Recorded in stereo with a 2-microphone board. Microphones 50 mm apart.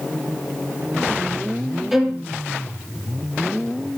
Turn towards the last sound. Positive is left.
turn(degrees=-5)  # may be behind; listen again after turning